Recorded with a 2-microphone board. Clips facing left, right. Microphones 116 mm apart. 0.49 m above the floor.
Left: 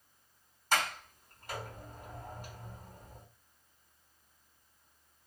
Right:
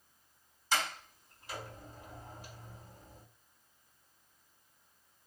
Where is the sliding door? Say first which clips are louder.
Left 2 dB; 55° left (ahead or behind), 4.5 m.